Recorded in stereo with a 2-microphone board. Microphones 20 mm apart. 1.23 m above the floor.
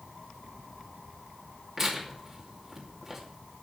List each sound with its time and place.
1.8 s tearing paper: 25° right (ahead or behind), 2.5 m